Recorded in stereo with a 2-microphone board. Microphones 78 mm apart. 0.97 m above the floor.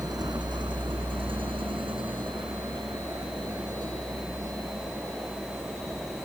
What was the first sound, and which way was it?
A vehicle, 50° right (ahead or behind).